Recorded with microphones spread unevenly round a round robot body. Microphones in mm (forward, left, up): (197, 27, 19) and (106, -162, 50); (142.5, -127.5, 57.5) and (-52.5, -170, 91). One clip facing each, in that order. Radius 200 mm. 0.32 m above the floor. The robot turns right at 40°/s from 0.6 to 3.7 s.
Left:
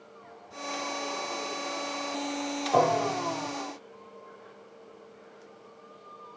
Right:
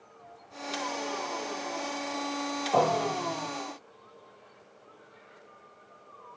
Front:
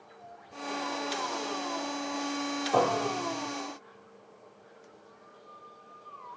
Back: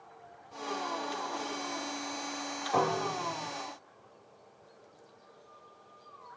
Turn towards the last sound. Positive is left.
turn(degrees=20)